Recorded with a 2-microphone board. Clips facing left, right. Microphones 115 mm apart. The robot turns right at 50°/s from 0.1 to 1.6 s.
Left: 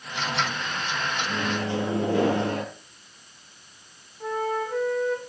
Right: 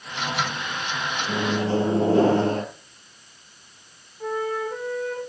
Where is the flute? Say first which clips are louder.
Right 1 dB; 5° right (ahead or behind), 7 m.